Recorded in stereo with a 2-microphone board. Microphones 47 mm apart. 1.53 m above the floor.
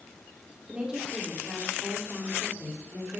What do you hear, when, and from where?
0.7 s a woman speaking: 20° right (ahead or behind), 4.5 m; by 3.2 s 45° right (ahead or behind), 4.5 m